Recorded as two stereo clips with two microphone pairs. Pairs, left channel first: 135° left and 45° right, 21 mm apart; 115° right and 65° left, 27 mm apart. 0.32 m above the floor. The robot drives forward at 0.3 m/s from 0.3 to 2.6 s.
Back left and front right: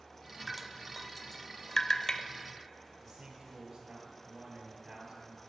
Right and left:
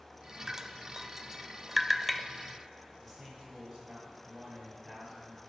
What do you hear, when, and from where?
0.5 s dripping: 20° left, 0.5 m; by 2.2 s 165° left, 0.5 m
3.0 s a man speaking: 10° left, 2.5 m